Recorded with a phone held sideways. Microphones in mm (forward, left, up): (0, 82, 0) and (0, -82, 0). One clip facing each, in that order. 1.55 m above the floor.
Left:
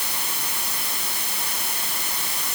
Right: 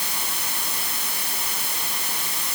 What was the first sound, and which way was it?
Only background noise.